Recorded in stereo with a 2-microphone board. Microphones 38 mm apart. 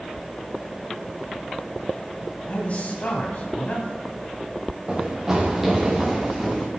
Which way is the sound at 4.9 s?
15° right (ahead or behind).